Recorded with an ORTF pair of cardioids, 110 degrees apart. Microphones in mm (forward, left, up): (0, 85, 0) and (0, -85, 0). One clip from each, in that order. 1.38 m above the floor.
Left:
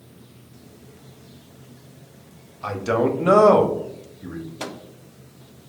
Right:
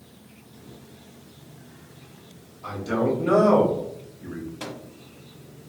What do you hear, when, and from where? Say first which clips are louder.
2.6 s a man speaking: left 4 dB; 70° left, 1.0 m; by 4.5 s 5° left, 0.9 m
4.6 s a microwave: left 5 dB; 25° left, 0.5 m